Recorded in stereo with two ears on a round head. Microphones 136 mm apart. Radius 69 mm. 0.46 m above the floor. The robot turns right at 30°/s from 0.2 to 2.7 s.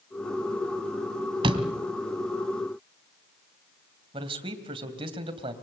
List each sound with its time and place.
1.4 s a door slam: 35° right (ahead or behind), 1.9 m; by 1.7 s 40° right (ahead or behind), 1.9 m
4.1 s a man speaking: 35° right (ahead or behind), 2.5 m